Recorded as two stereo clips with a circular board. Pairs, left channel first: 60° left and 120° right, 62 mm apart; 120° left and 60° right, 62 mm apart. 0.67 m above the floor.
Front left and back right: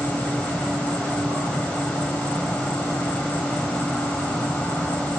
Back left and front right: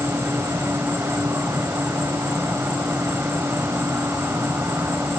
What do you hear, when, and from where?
0.0 s an insect: 5° right, 6 m